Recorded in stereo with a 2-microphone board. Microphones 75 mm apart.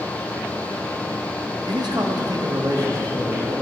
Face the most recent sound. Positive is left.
turn(degrees=-55)  # may be behind; listen again after turning